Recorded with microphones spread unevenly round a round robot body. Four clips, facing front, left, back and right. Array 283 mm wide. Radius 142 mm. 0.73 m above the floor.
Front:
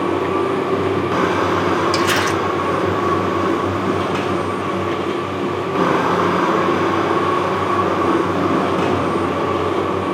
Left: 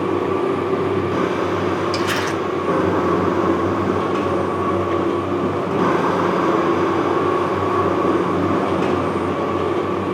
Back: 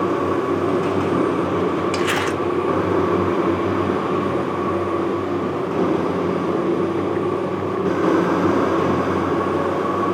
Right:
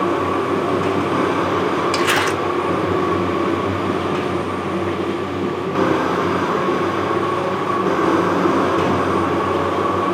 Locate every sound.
1.9 s crumpling: 100° right, 1.2 m